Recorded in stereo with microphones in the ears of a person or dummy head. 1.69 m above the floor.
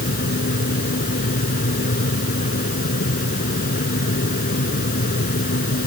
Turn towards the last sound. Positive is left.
turn(degrees=45)  # may be behind; listen again after turning